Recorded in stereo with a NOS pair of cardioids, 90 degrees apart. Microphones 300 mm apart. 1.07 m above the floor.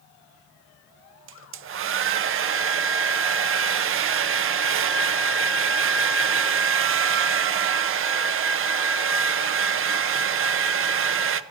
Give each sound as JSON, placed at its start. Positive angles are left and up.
{"t": 1.3, "sound": "a hair dryer", "azimuth_deg": -45, "distance_m": 0.6}